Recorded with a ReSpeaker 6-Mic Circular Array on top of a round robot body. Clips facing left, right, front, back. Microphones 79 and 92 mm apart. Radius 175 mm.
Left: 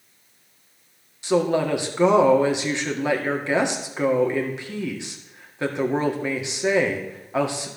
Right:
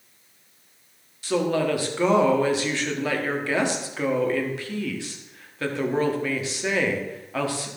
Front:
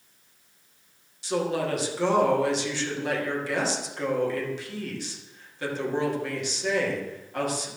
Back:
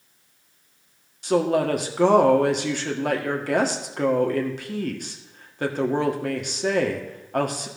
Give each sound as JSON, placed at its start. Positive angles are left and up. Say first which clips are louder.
{"t": 1.2, "sound": "a woman speaking", "louder": "left 2 dB, back 6 dB", "azimuth_deg": 155, "distance_m": 1.8}